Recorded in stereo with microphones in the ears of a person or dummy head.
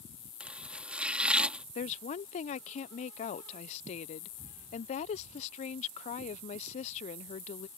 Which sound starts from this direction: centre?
Chopping, at 0.4 s.